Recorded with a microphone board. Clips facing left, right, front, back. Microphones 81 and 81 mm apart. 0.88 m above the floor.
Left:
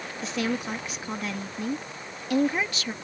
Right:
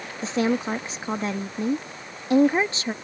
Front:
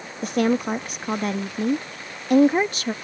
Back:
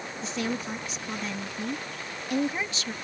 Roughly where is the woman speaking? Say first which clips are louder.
Right 6 dB, front 11 dB; ahead right.